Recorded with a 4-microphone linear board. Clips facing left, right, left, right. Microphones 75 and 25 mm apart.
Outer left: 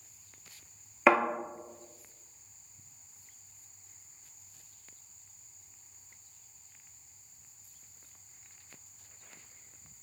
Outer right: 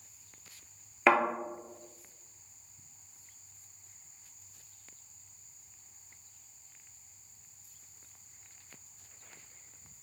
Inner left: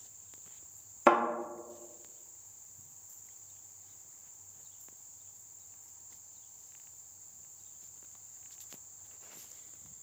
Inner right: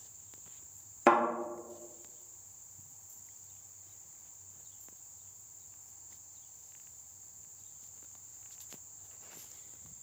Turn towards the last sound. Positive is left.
turn(degrees=5)  # may be behind; listen again after turning